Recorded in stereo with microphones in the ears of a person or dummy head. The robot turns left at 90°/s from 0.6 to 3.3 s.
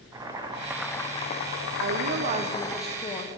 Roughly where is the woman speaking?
Right.